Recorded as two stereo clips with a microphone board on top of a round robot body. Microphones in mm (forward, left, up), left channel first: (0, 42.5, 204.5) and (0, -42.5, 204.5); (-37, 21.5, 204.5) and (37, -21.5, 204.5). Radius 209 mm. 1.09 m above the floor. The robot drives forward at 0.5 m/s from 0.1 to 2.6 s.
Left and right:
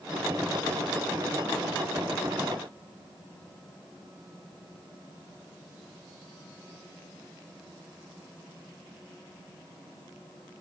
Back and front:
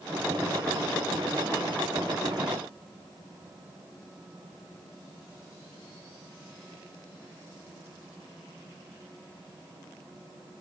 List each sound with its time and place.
Only background noise.